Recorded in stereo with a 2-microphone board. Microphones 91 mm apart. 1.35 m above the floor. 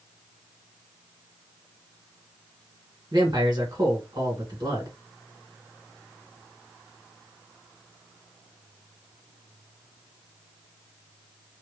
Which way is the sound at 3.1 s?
45° right (ahead or behind).